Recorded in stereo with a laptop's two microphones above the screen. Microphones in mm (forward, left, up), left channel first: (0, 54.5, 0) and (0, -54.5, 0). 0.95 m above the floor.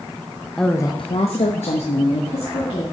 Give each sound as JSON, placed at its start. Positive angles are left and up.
{"t": 0.6, "sound": "a woman speaking", "side_deg": 5, "distance_m": 0.5}